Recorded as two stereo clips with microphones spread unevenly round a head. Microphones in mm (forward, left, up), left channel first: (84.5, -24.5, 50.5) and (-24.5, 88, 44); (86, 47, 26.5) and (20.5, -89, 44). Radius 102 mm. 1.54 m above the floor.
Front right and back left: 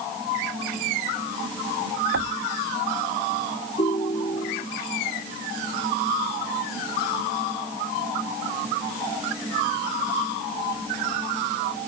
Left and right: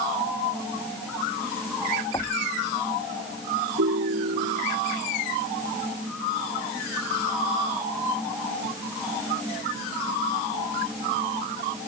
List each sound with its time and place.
2.1 s knocking: 140° left
3.8 s a ringtone: 110° right